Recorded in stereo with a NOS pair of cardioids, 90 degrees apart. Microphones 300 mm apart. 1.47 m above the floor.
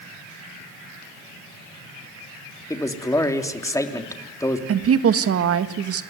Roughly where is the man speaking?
Ahead.